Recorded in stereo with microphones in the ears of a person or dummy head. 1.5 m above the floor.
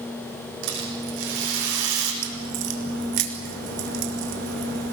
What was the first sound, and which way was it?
A rattle, 85° right.